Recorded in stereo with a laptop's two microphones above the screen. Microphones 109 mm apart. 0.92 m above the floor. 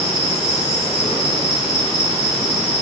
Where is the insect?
80° left, 1.2 m.